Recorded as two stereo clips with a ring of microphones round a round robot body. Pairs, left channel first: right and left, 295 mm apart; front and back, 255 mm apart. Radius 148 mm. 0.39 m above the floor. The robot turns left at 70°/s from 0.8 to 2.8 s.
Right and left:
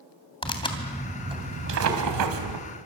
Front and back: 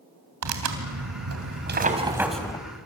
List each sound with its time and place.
0.4 s tearing paper: 165° right, 3 m; by 2.6 s 70° left, 3 m